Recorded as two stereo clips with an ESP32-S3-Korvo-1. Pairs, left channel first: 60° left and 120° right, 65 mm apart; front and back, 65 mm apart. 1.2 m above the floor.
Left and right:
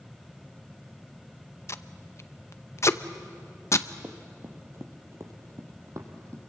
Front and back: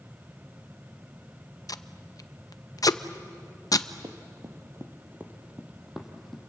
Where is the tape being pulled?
20° left, 0.6 m.